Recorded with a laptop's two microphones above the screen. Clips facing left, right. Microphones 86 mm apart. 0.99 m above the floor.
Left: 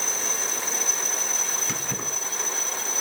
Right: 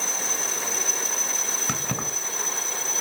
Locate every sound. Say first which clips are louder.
1.7 s keys jangling: right 2 dB; 75° right (ahead or behind), 5 m